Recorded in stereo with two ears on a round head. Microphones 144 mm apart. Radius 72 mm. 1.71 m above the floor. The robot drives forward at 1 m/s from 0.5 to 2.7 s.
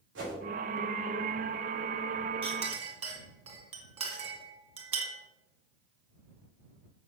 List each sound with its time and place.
0.1 s a whoosh: 85° right, 4 m
2.4 s a clink: 35° right (ahead or behind), 2.5 m; by 5.2 s 40° right (ahead or behind), 2 m